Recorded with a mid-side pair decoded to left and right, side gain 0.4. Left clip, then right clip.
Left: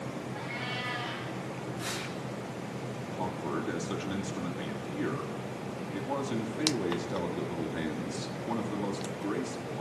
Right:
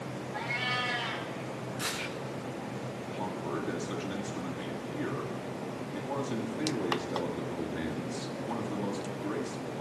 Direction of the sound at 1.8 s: 60° right.